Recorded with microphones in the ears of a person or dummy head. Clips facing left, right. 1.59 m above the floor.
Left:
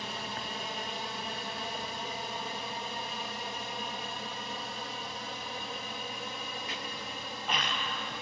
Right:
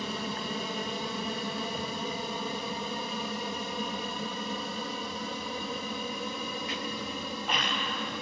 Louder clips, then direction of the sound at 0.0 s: Right 5 dB; 65° right (ahead or behind).